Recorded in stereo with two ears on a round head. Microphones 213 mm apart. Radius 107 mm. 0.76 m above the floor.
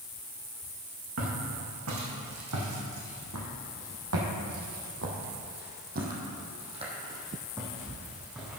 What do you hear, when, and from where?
1.2 s footsteps: 65° right (ahead or behind), 3.5 m; by 8.6 s 5° right (ahead or behind), 3 m